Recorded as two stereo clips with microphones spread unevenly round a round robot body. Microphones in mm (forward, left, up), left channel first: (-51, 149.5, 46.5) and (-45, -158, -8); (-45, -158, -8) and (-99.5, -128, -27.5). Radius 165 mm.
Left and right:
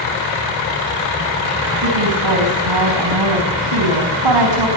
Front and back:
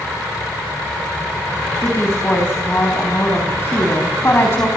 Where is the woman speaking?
80° right, 4.5 m.